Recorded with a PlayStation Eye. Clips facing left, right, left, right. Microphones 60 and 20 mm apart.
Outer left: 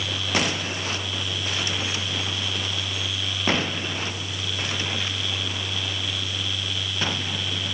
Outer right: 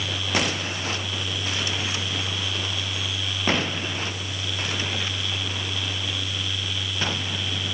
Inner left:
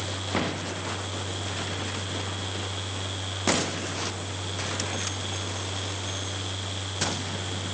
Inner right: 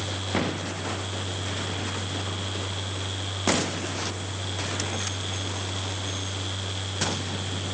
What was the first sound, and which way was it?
Only background noise.